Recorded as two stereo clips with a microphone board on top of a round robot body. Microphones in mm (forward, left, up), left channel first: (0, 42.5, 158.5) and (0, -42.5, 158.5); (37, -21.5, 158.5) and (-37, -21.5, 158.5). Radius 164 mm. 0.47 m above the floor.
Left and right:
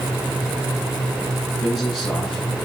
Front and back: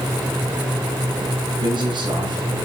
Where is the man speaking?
Straight behind, 8 m.